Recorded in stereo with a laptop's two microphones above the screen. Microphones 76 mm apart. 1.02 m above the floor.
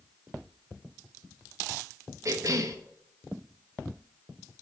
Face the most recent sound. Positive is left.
turn(degrees=-50)  # may be behind; listen again after turning